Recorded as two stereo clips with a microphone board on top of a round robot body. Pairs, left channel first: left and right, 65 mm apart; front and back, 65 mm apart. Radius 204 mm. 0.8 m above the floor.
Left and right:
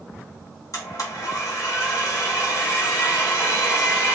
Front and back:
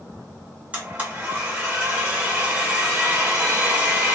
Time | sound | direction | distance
0.7 | a blender | 115° left | 2.0 m